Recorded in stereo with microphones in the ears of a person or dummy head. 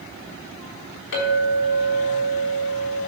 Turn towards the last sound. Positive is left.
turn(degrees=75)  # may be behind; listen again after turning